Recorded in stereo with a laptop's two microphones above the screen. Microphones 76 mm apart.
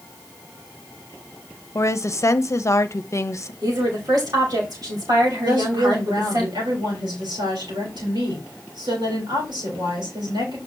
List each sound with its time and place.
1.8 s a woman speaking: 40° left (ahead or behind), 0.8 m
3.6 s a woman speaking: 60° right (ahead or behind), 3.5 m
5.4 s a woman speaking: 75° right (ahead or behind), 4 m